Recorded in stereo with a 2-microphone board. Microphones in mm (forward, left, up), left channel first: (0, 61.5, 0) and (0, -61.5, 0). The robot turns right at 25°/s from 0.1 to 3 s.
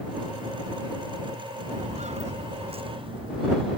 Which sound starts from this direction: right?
Footsteps, at 1.7 s.